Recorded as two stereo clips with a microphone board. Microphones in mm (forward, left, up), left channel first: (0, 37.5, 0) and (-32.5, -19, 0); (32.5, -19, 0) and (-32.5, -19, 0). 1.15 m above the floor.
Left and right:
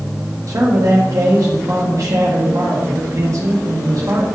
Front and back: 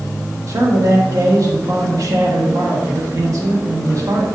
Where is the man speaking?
150° right, 2 m.